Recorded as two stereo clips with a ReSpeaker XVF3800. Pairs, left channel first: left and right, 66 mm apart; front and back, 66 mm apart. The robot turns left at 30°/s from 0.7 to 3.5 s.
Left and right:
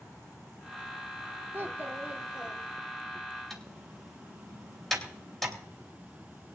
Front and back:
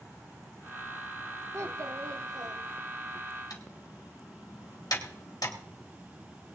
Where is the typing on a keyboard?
5° left, 3.5 m.